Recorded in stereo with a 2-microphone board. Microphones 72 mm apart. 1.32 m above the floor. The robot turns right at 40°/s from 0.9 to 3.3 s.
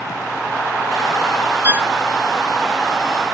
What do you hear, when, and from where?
1.6 s a violin: 30° right (ahead or behind); by 1.9 s 20° right (ahead or behind)